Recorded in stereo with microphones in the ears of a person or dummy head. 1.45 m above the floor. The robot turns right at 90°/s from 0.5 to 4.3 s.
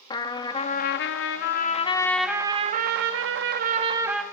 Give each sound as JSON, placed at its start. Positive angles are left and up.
{"t": 0.1, "sound": "a trumpet", "azimuth_deg": 25, "distance_m": 1.3}